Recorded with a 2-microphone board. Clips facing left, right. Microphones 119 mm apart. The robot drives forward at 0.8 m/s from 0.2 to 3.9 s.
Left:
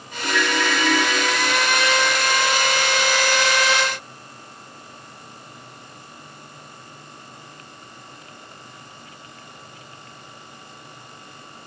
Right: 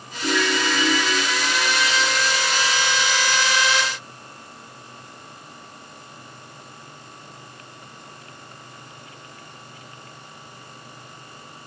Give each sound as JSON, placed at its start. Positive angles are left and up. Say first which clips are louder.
{"t": 0.2, "sound": "a ringtone", "louder": "even", "side_deg": -20, "distance_m": 1.0}